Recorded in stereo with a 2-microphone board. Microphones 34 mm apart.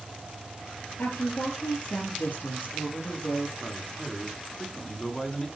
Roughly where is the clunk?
I don't hear a clunk.